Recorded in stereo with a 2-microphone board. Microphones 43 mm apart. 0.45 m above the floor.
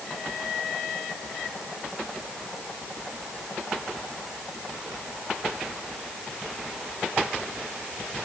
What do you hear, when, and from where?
Only background noise.